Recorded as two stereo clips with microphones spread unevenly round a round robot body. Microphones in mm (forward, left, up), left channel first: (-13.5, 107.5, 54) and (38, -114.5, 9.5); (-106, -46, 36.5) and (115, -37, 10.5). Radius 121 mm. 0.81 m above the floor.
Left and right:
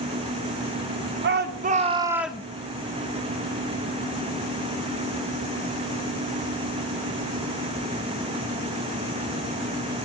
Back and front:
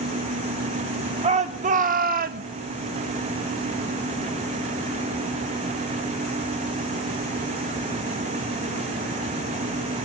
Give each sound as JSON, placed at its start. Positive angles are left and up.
{"t": 1.2, "sound": "a shout", "azimuth_deg": -55, "distance_m": 0.8}